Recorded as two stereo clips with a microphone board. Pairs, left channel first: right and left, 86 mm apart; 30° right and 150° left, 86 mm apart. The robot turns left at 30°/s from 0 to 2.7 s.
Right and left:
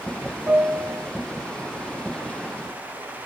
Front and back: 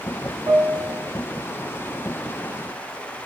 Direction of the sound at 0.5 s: 165° left.